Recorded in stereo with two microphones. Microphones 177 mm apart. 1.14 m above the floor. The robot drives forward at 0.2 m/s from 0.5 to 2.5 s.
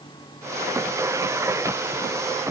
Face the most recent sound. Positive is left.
No sound to turn to.